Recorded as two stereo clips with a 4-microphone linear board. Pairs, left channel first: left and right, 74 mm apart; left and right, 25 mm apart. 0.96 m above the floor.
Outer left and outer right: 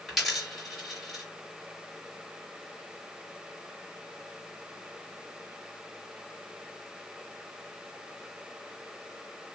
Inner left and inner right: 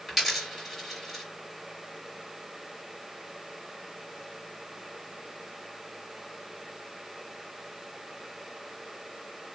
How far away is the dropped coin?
About 2 m.